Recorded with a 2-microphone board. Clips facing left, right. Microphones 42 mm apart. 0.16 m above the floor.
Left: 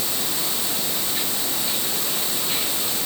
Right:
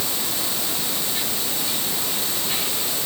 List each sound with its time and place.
Only background noise.